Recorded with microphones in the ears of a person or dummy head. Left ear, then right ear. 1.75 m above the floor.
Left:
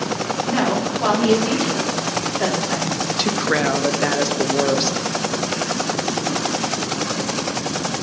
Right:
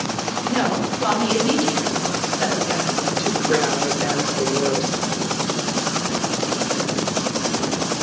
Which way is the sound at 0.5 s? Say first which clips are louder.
Left 1 dB; 75° left (ahead or behind).